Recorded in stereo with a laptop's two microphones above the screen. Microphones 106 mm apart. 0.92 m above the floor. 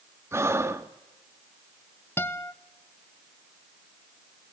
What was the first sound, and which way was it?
Breathing, 25° right (ahead or behind).